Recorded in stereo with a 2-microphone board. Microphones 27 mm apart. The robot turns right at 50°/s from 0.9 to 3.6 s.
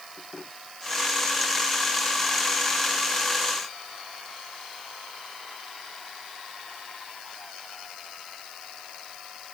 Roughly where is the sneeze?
No sneeze in this recording.